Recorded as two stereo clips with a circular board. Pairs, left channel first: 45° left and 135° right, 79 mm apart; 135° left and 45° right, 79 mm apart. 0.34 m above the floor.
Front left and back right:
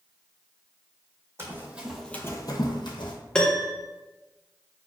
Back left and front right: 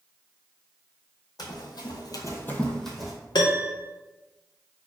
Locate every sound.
1.4 s running footsteps: 165° left, 0.9 m; by 3.1 s 40° left, 1.0 m
3.4 s a piano: 120° left, 0.5 m